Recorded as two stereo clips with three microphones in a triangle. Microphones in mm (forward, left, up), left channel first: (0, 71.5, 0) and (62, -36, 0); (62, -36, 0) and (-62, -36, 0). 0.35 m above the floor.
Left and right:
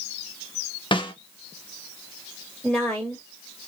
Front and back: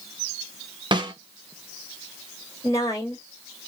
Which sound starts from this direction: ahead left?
A woman speaking, at 2.6 s.